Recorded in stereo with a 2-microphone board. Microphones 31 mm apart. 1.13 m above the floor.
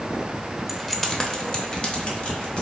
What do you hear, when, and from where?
0.7 s keys jangling: centre (ahead or behind), 0.6 m; by 2.6 s 45° left (ahead or behind), 1.7 m